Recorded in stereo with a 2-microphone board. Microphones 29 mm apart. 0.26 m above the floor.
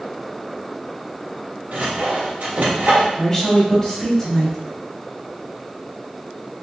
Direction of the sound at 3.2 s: 10° left (ahead or behind).